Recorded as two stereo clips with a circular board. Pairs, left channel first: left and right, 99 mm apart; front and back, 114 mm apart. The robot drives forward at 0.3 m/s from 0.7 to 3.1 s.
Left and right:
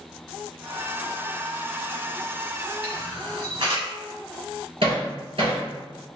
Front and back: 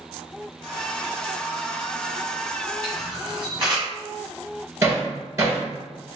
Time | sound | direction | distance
2.8 | a camera shutter | 130° right | 1.2 m
4.8 | hammering | 120° right | 1.6 m